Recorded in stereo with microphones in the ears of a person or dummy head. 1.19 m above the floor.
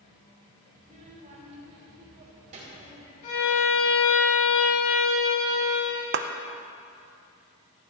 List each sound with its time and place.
0.8 s a child speaking: 40° right (ahead or behind), 4 m
3.2 s a violin: 45° left (ahead or behind), 4.5 m
6.1 s a clap: 50° right (ahead or behind), 0.6 m